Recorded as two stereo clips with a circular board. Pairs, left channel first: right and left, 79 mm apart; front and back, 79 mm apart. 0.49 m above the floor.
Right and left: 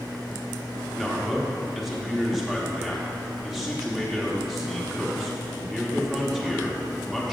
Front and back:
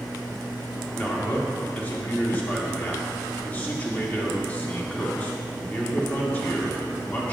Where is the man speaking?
5° left, 1.0 m.